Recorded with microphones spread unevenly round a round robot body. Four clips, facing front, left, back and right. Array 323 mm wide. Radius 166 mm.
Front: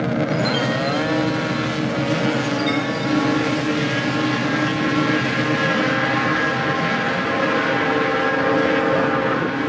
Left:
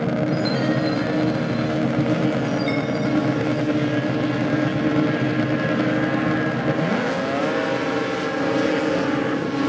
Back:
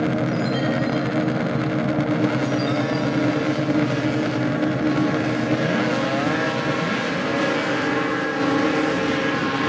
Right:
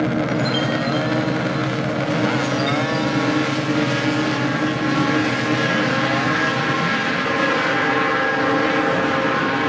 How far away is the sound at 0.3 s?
About 5 m.